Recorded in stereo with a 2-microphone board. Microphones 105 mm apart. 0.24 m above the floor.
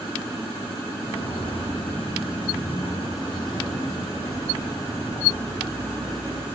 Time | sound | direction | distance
1.0 | footsteps | 60° left (ahead or behind) | 6 m